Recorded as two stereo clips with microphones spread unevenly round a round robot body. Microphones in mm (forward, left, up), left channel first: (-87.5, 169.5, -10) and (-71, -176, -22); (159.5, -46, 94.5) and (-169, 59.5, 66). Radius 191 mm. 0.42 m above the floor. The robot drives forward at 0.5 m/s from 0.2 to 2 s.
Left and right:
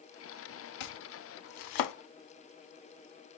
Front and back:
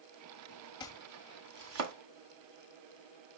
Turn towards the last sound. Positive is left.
turn(degrees=120)